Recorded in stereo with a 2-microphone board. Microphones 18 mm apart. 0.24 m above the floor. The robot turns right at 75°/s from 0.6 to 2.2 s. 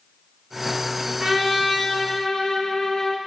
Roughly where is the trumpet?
Ahead right.